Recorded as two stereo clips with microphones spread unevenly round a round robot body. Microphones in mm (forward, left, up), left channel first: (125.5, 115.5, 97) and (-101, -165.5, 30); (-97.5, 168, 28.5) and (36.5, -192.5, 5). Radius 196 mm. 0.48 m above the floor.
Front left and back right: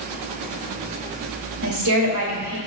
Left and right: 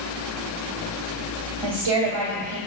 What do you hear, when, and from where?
1.6 s a woman speaking: 90° right, 2 m